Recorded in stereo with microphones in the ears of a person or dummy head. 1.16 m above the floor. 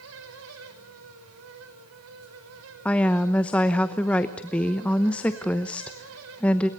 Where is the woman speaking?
5° left (ahead or behind), 0.9 m.